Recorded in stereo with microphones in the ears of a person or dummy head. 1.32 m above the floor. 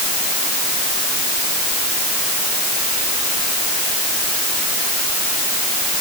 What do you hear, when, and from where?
Only background noise.